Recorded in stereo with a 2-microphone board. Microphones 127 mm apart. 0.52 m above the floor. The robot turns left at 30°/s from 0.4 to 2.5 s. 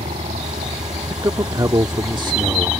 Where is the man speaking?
60° right; by 2.7 s 100° right.